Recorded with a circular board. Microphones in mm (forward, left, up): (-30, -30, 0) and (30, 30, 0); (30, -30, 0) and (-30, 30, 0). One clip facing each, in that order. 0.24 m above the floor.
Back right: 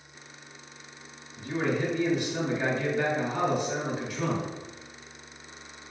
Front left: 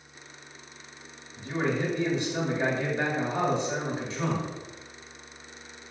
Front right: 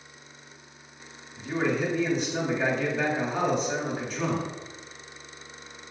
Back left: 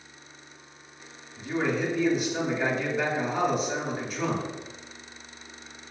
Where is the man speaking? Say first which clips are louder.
Even, even; 60° left, 1.6 m.